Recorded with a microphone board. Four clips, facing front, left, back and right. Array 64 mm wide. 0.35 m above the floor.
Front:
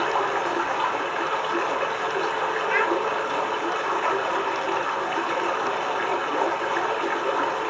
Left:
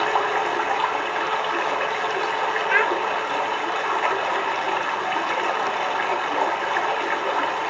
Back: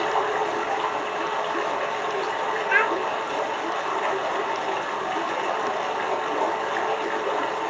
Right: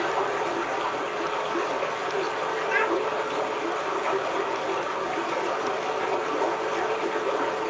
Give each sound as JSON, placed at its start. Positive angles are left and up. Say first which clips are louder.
{"t": 0.0, "sound": "running water", "louder": "left 4 dB, even", "azimuth_deg": 95, "distance_m": 1.4}
{"t": 2.7, "sound": "a child speaking", "louder": "left 4 dB, back 2 dB", "azimuth_deg": 130, "distance_m": 0.5}